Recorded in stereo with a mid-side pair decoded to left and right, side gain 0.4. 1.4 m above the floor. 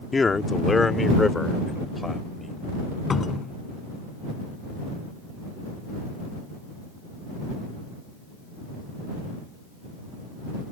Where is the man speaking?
35° left; by 2.6 s 25° left.